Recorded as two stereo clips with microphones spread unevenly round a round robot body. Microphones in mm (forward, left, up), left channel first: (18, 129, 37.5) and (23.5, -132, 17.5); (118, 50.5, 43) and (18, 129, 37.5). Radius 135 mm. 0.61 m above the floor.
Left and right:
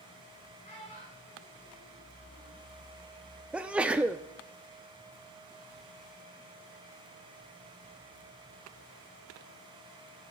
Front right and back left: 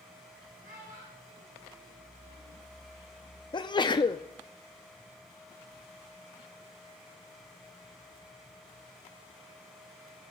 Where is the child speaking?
160° left, 6 m; by 2.6 s 170° left, 5 m.